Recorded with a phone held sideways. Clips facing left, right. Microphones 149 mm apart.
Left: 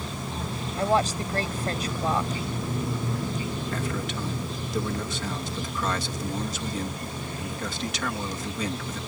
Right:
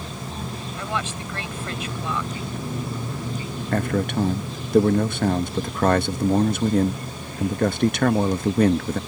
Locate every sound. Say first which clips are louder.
0.8 s a woman speaking: left 7 dB; 40° left (ahead or behind)
3.7 s a man speaking: right 8 dB; 55° right (ahead or behind)